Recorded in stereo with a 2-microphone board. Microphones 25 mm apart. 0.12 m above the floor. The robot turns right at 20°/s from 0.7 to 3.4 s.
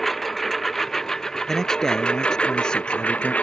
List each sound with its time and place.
0.0 s a lawn mower: 10° left; by 3.4 s 65° left
1.5 s a man speaking: 20° left; by 3.3 s 60° left